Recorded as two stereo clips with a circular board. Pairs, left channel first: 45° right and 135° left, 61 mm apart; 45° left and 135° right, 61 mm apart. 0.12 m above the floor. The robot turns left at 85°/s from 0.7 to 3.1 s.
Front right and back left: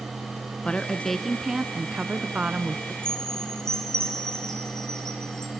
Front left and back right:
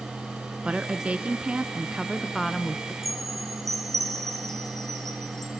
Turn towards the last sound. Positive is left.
turn(degrees=-125)